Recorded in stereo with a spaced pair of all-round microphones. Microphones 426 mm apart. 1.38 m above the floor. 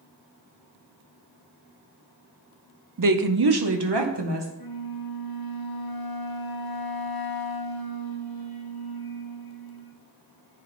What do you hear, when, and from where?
3.0 s a woman speaking: 45° right (ahead or behind), 0.5 m; by 4.5 s 75° right (ahead or behind), 1.2 m
4.6 s a flute: 55° left (ahead or behind), 0.8 m